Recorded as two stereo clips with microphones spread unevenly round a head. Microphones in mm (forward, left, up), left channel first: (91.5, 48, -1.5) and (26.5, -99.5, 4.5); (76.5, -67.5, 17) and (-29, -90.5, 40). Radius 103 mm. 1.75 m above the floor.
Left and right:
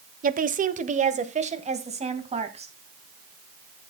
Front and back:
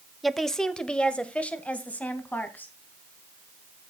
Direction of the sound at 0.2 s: 80° right.